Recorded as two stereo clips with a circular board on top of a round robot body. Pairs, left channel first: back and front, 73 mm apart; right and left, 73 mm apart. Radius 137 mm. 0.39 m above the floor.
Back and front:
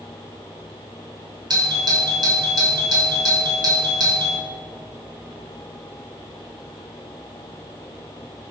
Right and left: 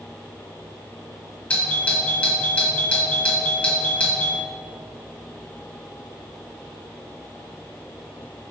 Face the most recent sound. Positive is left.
turn(degrees=-20)